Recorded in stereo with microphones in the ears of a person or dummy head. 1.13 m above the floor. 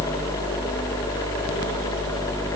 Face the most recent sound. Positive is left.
No sound to turn to.